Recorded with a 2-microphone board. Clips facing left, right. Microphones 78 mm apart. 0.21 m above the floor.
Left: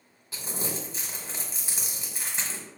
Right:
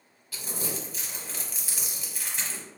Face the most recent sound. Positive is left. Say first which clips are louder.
# left 1 dB
turn(degrees=25)  # may be behind; listen again after turning